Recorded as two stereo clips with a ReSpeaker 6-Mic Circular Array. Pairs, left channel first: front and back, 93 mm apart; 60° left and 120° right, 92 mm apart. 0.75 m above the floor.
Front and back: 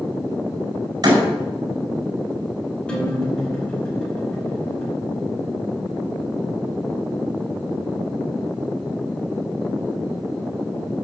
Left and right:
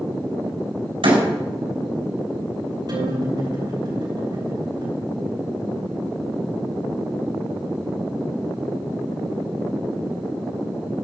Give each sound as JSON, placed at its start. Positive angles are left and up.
{"t": 1.0, "sound": "a door slam", "azimuth_deg": -135, "distance_m": 4.5}
{"t": 2.9, "sound": "a guitar", "azimuth_deg": -80, "distance_m": 5.0}